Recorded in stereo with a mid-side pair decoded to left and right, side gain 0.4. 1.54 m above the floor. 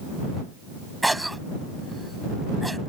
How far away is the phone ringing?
No phone ringing in this recording.